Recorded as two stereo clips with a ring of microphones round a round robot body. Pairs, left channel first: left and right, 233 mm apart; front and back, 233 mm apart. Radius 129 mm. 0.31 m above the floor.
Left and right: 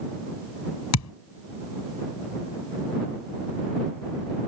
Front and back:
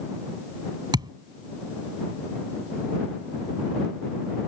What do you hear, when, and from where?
0.9 s a thud: 105° left